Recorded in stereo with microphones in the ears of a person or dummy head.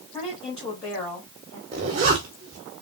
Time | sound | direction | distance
0.1 | a woman speaking | 15° left (ahead or behind) | 2.5 m
1.7 | a zipper | 30° right (ahead or behind) | 0.7 m